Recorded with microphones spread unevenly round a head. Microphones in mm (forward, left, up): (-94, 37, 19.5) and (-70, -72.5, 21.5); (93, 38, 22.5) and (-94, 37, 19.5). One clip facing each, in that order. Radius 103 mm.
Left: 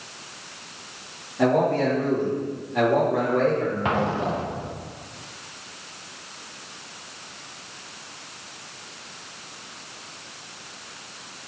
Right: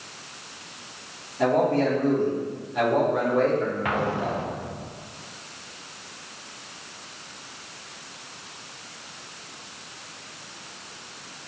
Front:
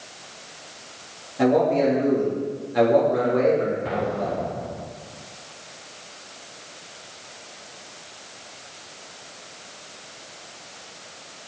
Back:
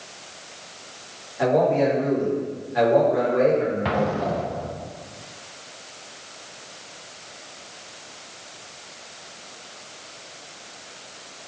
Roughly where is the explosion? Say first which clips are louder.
Left 2 dB, back 2 dB; behind.